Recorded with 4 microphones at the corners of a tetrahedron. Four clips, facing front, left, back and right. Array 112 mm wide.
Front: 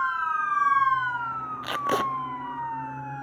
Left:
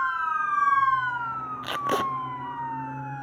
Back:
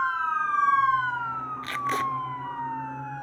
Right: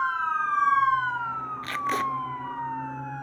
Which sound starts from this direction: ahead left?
Tape being pulled, at 1.6 s.